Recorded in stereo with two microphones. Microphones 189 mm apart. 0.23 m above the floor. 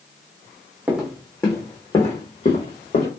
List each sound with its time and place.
0.9 s footsteps: 5° right (ahead or behind), 0.9 m; by 3.1 s 50° left (ahead or behind), 1.5 m